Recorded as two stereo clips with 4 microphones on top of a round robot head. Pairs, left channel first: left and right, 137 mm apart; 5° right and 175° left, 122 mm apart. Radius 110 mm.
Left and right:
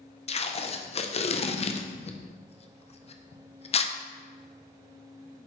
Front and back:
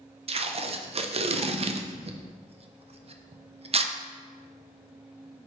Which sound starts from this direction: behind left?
Tape being pulled, at 0.3 s.